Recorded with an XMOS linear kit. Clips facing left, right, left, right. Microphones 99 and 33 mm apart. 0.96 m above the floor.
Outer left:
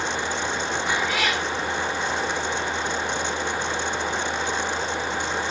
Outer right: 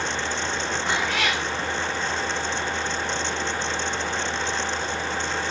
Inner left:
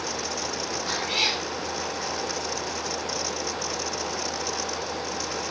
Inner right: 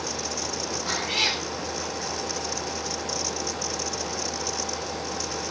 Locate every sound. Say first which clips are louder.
0.9 s a cat meowing: even, even; 10° left (ahead or behind), 4.5 m